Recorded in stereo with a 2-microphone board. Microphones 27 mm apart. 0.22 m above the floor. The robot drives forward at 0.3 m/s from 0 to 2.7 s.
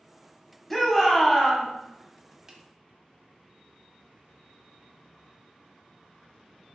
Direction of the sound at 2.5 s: 25° right (ahead or behind).